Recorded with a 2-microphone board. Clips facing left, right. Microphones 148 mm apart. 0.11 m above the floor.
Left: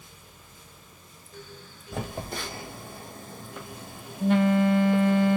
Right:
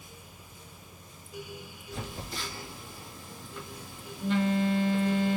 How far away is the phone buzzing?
About 0.8 m.